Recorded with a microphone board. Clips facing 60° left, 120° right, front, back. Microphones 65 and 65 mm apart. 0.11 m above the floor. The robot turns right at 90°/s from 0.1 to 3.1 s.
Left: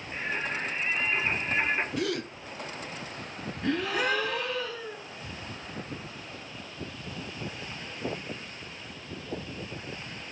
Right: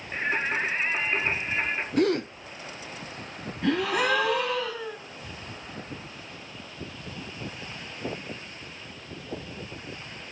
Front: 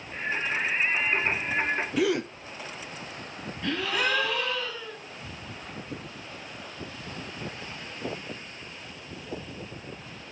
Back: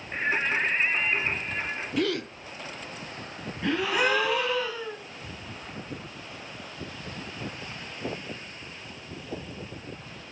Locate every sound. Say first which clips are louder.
0.1 s singing: right 5 dB, back 3 dB; 165° right, 1.6 m; by 1.9 s 5° right, 1.6 m
2.0 s a gasp: right 7 dB, front 1 dB; 85° right, 0.8 m; by 2.3 s 55° right, 0.8 m
3.6 s a gasp: right 3 dB, back 3 dB; 110° right, 6 m